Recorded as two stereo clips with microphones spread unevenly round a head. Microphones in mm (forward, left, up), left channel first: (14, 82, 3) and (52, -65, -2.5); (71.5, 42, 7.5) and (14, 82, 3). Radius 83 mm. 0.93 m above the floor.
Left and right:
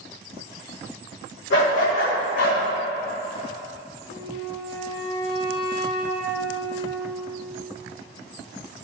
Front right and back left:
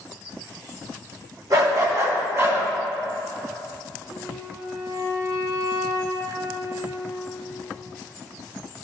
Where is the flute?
95° left, 1.4 m.